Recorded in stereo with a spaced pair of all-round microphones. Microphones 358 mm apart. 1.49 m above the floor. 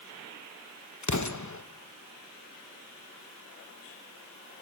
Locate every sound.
1.0 s an explosion: 55° left (ahead or behind), 1.1 m